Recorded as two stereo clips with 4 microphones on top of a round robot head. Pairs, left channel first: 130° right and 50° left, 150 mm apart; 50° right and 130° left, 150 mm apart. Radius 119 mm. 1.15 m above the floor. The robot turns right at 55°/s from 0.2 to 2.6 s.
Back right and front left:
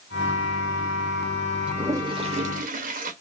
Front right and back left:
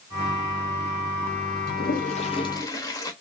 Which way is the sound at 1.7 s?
30° right.